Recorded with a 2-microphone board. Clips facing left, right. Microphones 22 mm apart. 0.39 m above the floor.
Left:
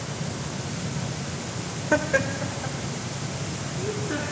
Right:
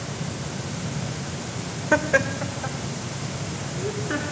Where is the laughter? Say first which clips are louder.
Right 2 dB; 15° right (ahead or behind), 0.9 m; by 4.2 s 30° right (ahead or behind), 4 m.